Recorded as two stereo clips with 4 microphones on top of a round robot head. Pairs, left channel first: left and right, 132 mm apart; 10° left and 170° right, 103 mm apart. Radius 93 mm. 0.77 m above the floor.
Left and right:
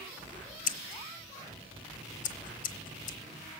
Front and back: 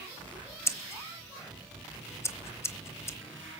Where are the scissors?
75° left, 1.0 m.